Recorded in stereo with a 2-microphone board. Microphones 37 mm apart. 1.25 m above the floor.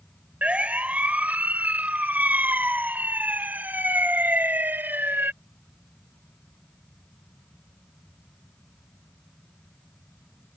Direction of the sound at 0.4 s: 40° right (ahead or behind).